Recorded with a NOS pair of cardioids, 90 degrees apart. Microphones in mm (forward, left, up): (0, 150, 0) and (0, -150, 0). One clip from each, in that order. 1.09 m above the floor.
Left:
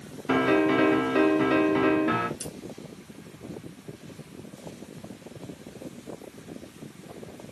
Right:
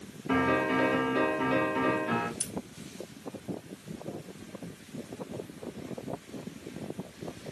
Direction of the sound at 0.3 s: 40° left.